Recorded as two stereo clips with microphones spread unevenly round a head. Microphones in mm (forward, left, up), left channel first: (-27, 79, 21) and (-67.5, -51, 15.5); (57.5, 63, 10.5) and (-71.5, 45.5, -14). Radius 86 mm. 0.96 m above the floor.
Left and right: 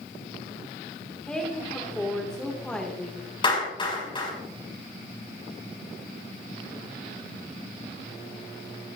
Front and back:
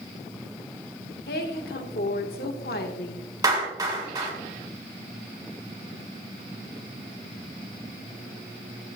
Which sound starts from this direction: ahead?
A woman speaking, at 1.3 s.